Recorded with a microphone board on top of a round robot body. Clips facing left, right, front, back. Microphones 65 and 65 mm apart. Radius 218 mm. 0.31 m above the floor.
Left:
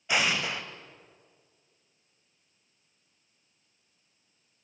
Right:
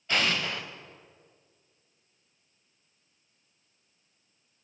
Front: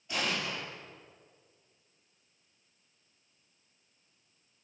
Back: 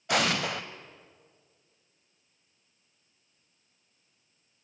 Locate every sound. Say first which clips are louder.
0.1 s an explosion: left 1 dB, back 7 dB; 170° left, 1.3 m